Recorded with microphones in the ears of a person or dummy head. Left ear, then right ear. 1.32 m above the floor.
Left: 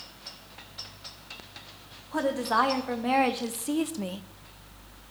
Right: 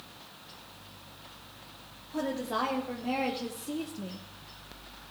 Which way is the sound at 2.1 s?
45° left (ahead or behind).